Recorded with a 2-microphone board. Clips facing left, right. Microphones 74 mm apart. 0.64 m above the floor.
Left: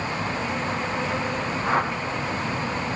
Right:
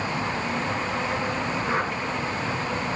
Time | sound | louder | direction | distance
1.6 | a whoosh | left 6 dB | 70° left (ahead or behind) | 4.5 m